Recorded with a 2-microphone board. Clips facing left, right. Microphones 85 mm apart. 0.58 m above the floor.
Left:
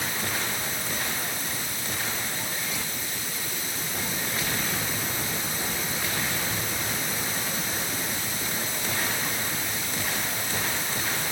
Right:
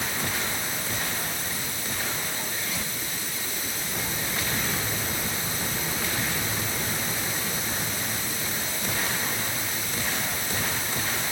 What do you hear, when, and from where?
Only background noise.